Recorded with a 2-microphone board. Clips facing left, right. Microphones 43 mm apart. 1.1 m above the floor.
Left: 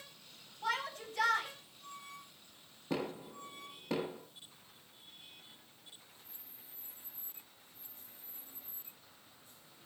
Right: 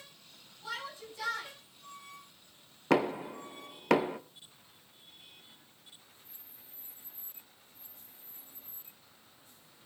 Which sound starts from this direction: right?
Knocking, at 2.9 s.